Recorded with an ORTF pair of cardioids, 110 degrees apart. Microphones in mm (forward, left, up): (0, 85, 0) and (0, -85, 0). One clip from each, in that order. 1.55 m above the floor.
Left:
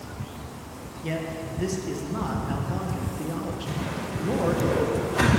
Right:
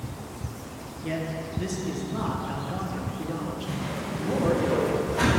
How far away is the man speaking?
About 1.1 m.